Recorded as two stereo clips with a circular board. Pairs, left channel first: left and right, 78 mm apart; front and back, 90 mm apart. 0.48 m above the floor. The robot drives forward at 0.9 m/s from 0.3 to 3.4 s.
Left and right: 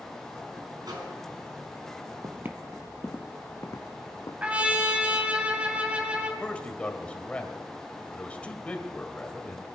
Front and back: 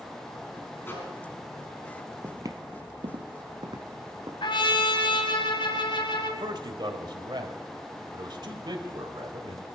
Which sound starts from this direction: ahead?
A trumpet, at 4.4 s.